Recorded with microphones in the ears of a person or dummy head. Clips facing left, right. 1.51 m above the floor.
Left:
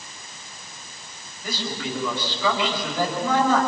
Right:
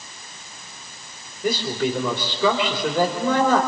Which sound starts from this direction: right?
A man speaking, at 1.4 s.